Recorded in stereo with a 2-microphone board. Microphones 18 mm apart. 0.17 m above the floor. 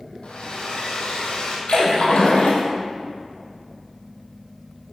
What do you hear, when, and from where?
0.2 s a hair dryer: 65° left (ahead or behind), 3 m
1.7 s a splash: 70° left (ahead or behind), 3.5 m